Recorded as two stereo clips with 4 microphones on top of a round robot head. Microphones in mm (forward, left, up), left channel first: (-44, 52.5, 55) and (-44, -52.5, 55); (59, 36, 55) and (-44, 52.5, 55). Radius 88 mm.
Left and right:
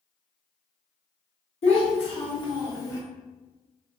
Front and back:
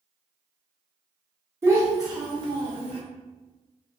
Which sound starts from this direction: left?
A child speaking, at 1.6 s.